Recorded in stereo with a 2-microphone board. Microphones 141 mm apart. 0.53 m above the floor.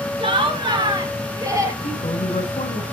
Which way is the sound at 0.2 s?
35° right (ahead or behind).